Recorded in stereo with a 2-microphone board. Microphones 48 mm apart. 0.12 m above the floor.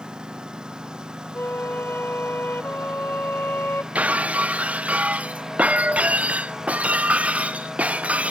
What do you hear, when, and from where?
0.0 s a lawn mower: 15° right (ahead or behind)
1.4 s a flute: 45° left (ahead or behind)
4.0 s breaking glass: 25° right (ahead or behind)